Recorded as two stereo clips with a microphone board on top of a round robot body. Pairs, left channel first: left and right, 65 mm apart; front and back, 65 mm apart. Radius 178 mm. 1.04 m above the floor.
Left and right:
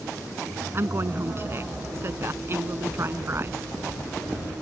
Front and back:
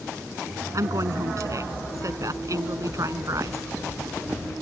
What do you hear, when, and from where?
0.7 s a woman speaking: 145° right